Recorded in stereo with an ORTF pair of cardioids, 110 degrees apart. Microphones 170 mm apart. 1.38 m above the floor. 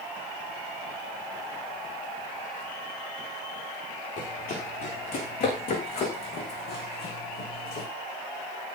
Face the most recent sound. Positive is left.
turn(degrees=75)